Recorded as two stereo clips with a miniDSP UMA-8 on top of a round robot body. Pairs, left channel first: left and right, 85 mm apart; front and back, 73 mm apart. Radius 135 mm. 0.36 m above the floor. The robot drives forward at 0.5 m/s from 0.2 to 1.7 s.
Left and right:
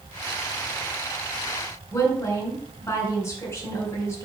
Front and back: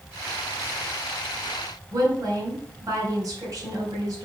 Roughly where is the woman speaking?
Behind left.